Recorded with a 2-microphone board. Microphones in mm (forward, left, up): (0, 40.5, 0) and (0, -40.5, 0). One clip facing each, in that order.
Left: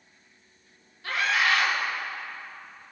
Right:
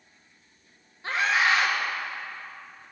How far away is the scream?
About 3 m.